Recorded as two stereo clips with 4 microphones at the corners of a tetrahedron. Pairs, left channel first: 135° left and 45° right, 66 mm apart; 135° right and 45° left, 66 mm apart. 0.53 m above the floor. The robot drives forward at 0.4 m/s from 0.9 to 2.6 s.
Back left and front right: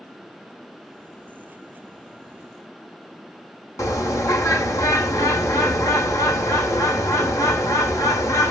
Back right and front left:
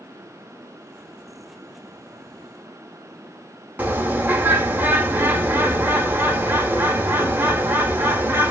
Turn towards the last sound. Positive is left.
turn(degrees=105)